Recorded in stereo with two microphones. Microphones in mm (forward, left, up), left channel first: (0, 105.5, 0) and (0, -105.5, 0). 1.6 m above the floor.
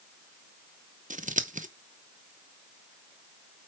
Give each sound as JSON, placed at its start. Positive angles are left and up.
{"t": 1.1, "sound": "scissors", "side_deg": -40, "distance_m": 0.8}